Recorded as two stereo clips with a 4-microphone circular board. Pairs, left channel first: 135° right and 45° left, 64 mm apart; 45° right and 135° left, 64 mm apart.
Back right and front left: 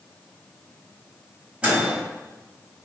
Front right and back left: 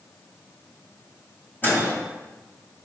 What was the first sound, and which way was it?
A microwave, 15° right.